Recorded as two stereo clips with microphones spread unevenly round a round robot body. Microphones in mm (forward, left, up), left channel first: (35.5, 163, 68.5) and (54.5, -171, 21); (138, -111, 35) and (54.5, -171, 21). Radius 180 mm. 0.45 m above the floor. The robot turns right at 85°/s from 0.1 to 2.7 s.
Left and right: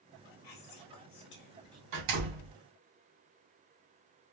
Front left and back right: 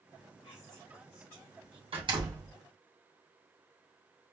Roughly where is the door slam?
Behind right.